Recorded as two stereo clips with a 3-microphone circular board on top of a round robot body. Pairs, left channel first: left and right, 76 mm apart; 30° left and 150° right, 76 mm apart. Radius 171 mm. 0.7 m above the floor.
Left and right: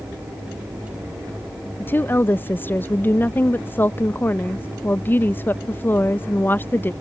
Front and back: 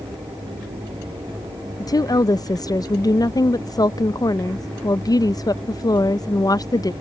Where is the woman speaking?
30° left.